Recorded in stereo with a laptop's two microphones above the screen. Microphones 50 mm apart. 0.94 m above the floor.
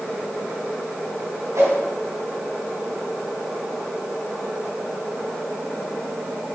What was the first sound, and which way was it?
A whoosh, 80° right.